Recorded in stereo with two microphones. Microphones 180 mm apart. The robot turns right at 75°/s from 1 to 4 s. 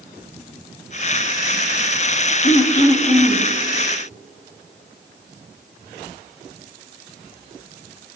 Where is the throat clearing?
125° left, 0.6 m; by 3.5 s 160° right, 0.6 m.